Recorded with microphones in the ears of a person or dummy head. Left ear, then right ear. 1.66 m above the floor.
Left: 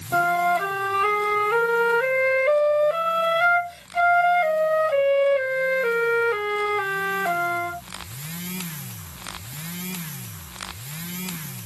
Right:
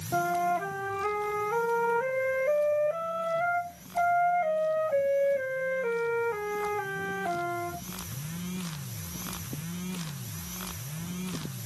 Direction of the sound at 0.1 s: 45° left (ahead or behind).